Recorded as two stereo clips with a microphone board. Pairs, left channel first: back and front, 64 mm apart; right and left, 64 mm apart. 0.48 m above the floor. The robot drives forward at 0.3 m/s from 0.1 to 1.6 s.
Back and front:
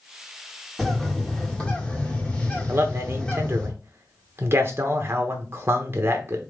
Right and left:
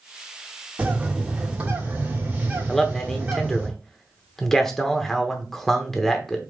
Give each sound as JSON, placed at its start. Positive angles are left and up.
{"t": 0.8, "sound": "a bird", "azimuth_deg": 105, "distance_m": 1.4}
{"t": 2.7, "sound": "a man speaking", "azimuth_deg": -5, "distance_m": 0.9}